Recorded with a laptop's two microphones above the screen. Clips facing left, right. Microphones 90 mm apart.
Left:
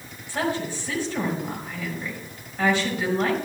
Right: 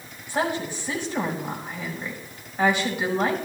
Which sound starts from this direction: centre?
A woman speaking, at 0.3 s.